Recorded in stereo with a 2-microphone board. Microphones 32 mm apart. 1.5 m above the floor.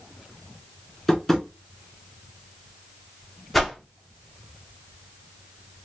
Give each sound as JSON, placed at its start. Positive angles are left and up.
{"t": 1.1, "sound": "tapping", "side_deg": 10, "distance_m": 1.2}
{"t": 3.5, "sound": "a whoosh", "side_deg": 0, "distance_m": 0.7}